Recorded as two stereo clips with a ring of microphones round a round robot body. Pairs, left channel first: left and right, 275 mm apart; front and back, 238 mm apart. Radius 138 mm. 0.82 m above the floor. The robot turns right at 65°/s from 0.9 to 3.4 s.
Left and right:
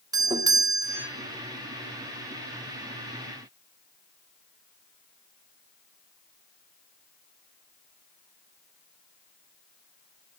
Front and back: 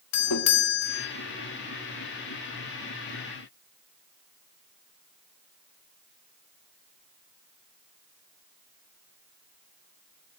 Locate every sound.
0.1 s a doorbell: 15° right, 2 m; by 1.1 s straight ahead, 2 m